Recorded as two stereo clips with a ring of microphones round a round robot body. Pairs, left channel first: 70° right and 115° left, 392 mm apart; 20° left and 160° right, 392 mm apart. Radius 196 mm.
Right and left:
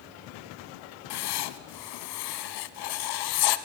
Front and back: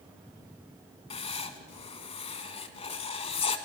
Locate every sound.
1.1 s writing: 50° right, 0.8 m